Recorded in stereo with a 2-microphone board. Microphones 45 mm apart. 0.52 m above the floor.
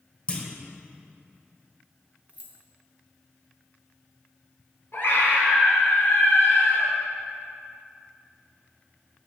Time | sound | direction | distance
0.3 | a clunk | 25° left (ahead or behind) | 1.0 m
2.3 | keys jangling | 35° right (ahead or behind) | 0.9 m
4.9 | a scream | 55° left (ahead or behind) | 1.7 m